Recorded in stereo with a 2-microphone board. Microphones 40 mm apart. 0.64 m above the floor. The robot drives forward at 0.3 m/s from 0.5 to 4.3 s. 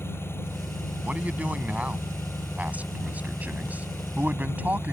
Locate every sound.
0.0 s an engine running: 85° left
1.0 s a man speaking: 35° right (ahead or behind); by 4.9 s 40° right (ahead or behind)